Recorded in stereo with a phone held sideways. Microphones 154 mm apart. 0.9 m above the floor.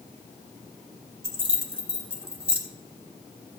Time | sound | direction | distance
1.2 | keys jangling | 35° right (ahead or behind) | 1.4 m